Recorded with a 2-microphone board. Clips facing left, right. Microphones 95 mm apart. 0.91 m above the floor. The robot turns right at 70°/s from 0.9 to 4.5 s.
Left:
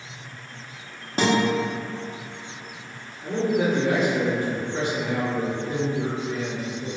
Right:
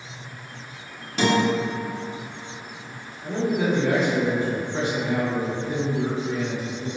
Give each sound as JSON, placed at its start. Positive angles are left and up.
{"t": 1.2, "sound": "a guitar", "side_deg": 40, "distance_m": 0.7}
{"t": 3.2, "sound": "a man speaking", "azimuth_deg": 120, "distance_m": 1.5}